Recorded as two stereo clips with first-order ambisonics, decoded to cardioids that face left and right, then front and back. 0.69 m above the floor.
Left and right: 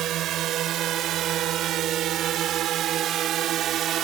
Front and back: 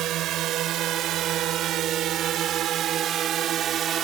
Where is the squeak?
I don't hear a squeak.